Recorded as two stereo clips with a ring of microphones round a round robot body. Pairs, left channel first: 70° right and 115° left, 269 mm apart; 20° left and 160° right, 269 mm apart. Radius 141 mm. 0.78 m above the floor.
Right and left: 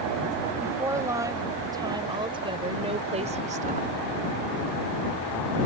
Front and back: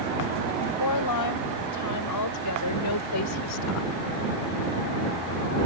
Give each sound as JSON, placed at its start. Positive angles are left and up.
{"t": 0.6, "sound": "a woman speaking", "azimuth_deg": 30}